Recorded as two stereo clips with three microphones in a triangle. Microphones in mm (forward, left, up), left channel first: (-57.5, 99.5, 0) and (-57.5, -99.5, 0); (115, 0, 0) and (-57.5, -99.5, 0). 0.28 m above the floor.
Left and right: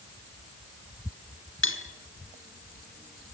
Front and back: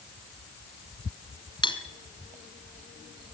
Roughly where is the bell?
No bell in this recording.